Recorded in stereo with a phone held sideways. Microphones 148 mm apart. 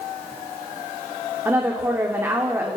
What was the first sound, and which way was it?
A woman speaking, 15° right (ahead or behind).